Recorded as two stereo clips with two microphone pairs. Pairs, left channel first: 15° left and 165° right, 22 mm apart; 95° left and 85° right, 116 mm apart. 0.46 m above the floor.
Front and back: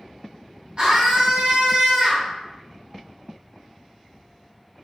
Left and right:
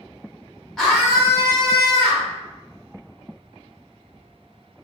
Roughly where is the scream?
Behind.